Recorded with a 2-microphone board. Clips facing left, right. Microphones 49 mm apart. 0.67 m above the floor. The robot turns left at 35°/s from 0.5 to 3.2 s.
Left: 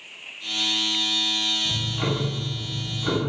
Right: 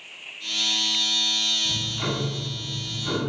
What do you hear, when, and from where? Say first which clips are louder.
1.6 s ticking: left 1 dB; 165° left, 0.8 m; by 3.3 s 110° left, 0.8 m